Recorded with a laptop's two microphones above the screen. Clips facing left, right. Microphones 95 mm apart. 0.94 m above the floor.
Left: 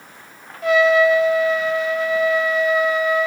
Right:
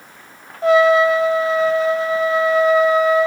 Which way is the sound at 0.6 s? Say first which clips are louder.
Right 2 dB; 35° right (ahead or behind).